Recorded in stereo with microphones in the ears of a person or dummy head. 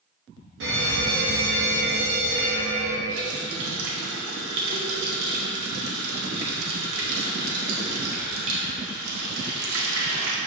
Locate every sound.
0.6 s a fire alarm: 65° right (ahead or behind), 2.5 m
3.1 s a running tap: 85° right, 1.7 m